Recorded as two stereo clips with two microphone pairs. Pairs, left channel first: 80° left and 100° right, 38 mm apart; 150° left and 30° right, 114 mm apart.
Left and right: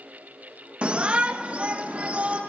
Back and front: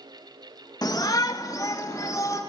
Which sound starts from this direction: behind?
A shout, at 0.8 s.